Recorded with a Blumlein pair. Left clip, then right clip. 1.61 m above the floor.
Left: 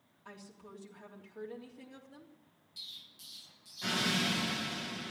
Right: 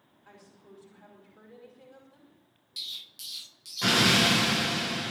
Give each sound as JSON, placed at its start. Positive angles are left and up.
{"t": 0.2, "sound": "a woman speaking", "azimuth_deg": 65, "distance_m": 3.0}
{"t": 2.8, "sound": "an explosion", "azimuth_deg": -55, "distance_m": 0.6}